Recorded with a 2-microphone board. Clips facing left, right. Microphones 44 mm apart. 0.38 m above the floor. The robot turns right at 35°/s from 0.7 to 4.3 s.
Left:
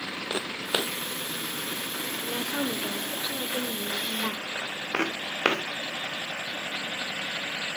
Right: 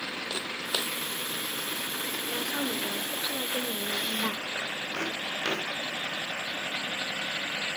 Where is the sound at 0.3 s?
30° left (ahead or behind), 0.6 m; by 0.9 s 25° left (ahead or behind), 0.6 m.